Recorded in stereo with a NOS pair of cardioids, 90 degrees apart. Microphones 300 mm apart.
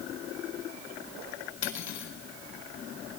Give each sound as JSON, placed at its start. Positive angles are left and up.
{"t": 1.6, "sound": "cutlery clinking", "azimuth_deg": 70, "distance_m": 4.5}